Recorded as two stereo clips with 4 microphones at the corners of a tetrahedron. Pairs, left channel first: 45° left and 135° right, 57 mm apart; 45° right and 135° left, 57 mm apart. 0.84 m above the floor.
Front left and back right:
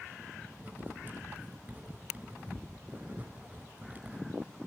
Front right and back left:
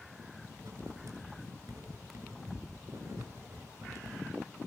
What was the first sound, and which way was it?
Writing, 165° left.